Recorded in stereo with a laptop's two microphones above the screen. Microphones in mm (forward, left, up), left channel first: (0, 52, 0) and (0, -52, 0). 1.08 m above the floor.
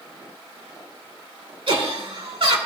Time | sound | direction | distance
1.7 | laughter | 60° right (ahead or behind) | 3 m